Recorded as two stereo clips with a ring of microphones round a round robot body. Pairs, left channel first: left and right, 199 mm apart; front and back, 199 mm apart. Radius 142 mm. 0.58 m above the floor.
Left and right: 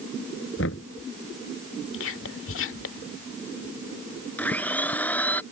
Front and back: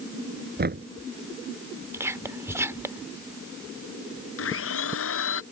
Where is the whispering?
105° left.